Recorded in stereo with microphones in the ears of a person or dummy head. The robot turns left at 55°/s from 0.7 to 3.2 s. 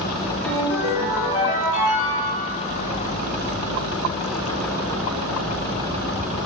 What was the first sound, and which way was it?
A ringtone, 100° left.